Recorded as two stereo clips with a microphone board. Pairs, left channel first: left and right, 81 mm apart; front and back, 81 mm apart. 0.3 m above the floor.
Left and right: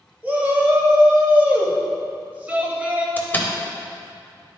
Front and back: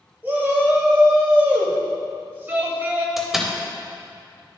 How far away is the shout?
About 1.0 m.